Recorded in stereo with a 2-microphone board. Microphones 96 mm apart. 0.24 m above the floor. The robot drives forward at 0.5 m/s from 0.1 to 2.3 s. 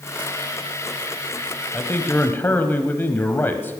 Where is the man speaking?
20° left (ahead or behind), 1.0 m.